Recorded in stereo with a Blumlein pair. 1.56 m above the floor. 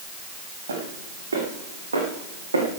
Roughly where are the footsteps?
Right.